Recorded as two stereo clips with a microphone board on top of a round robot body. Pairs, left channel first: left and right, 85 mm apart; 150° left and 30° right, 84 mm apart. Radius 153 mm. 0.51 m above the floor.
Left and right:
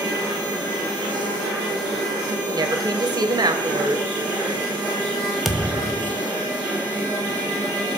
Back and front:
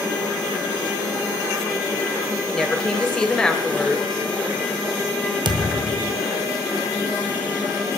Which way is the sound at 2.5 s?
130° right.